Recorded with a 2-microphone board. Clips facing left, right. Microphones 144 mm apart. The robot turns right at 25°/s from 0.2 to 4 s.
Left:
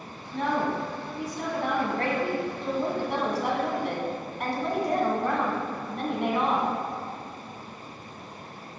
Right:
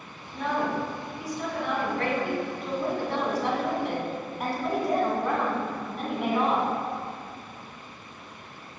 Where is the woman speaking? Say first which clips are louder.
Left 1 dB; 90° left, 2 m; by 6.7 s 175° right, 2 m.